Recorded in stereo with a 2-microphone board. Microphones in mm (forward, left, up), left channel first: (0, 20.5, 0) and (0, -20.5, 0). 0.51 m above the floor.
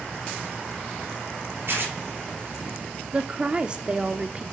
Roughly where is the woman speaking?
Right.